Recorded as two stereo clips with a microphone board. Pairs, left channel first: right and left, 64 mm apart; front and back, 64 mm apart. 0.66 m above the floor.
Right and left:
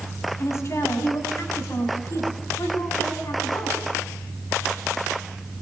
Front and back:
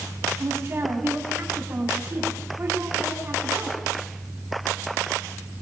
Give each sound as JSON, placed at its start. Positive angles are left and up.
{"t": 0.4, "sound": "a woman speaking", "azimuth_deg": -130, "distance_m": 5.5}